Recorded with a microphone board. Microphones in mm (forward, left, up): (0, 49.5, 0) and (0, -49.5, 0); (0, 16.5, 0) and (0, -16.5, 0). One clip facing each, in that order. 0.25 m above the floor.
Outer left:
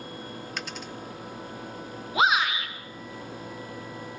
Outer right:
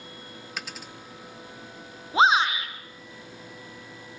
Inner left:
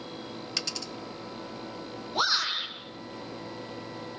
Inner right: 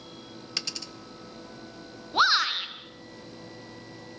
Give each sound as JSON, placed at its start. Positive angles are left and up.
{"t": 0.6, "sound": "a dropped coin", "side_deg": -5, "distance_m": 0.6}
{"t": 2.1, "sound": "a shout", "side_deg": -30, "distance_m": 2.5}